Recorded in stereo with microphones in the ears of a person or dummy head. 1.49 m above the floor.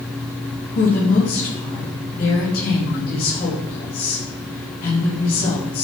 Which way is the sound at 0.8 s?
55° left (ahead or behind).